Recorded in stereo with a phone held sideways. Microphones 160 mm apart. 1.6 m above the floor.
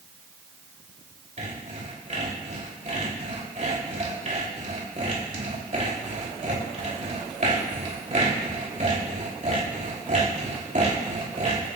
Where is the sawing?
55° right (ahead or behind), 3.5 m.